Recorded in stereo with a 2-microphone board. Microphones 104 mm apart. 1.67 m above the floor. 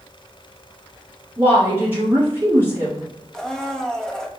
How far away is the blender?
About 0.6 m.